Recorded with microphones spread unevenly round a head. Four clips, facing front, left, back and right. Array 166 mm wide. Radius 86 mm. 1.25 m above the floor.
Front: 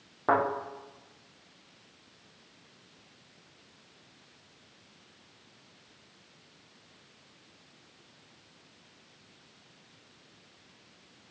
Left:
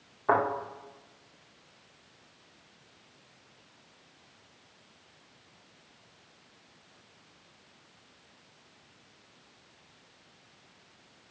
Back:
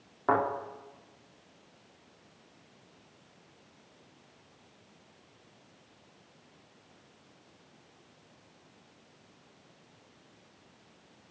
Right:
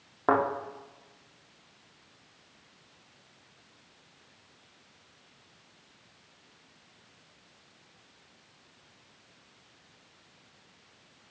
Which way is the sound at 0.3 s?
70° right.